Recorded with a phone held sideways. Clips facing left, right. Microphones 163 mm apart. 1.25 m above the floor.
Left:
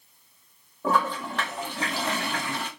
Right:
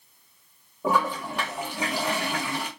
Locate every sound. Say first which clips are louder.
0.8 s a toilet flushing: even; 10° right (ahead or behind), 0.6 m